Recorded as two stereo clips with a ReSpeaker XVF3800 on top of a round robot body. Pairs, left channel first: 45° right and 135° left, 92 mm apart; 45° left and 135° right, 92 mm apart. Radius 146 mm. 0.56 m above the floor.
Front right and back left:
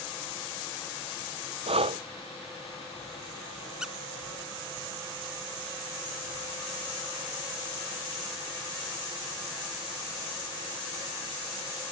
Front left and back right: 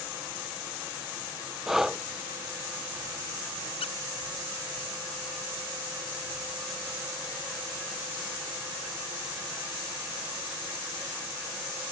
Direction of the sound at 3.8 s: 50° left.